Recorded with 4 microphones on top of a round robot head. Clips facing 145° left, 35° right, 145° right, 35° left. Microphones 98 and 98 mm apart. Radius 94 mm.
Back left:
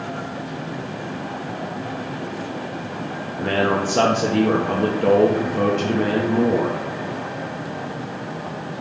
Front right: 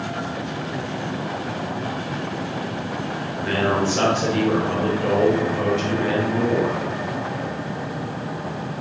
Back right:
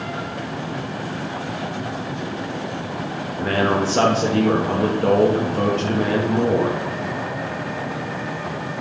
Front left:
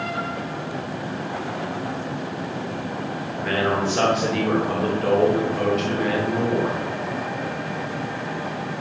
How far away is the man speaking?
About 1.5 m.